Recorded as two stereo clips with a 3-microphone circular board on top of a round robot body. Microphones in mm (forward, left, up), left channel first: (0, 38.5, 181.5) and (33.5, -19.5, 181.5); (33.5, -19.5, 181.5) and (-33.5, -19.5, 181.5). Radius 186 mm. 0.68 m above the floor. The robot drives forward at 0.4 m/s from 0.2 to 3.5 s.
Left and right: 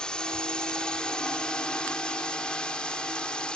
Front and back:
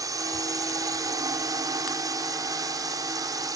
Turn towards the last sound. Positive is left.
turn(degrees=-165)